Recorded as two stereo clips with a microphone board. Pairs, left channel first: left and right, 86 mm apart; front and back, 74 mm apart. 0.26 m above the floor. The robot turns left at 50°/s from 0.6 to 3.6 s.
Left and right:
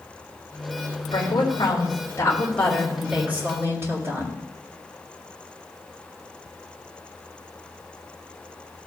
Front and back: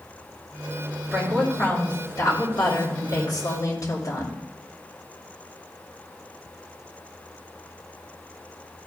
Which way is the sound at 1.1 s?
90° left.